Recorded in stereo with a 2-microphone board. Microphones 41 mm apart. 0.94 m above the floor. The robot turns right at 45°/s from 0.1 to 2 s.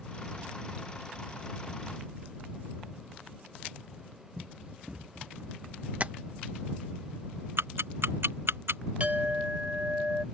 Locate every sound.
4.4 s running footsteps: 20° right (ahead or behind); by 5.9 s 30° right (ahead or behind)
6.0 s tapping: 35° right (ahead or behind)
7.6 s ticking: 90° right
9.0 s a clink: 35° right (ahead or behind)